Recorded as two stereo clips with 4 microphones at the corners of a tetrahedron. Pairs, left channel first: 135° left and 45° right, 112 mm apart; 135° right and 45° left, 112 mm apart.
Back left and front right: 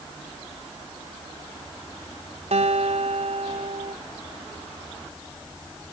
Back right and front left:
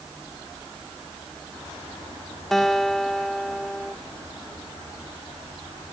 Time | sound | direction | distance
2.5 | a guitar | 45° right | ?